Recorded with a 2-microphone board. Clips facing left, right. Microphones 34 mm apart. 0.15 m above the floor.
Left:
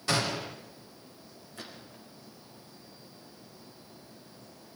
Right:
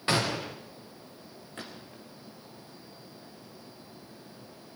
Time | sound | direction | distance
0.1 | a gunshot | 30° right (ahead or behind) | 7 m
1.6 | a gunshot | 40° right (ahead or behind) | 6 m